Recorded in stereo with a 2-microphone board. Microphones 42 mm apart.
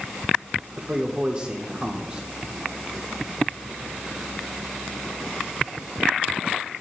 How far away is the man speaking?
About 1.1 m.